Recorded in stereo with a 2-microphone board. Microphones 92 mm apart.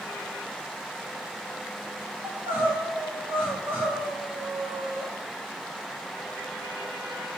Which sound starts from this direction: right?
Crying, at 2.2 s.